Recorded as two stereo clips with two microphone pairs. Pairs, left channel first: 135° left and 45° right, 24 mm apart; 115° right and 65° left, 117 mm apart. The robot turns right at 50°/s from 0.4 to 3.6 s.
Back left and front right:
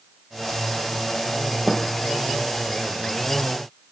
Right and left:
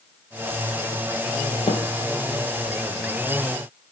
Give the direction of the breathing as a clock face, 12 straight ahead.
No breathing in this recording.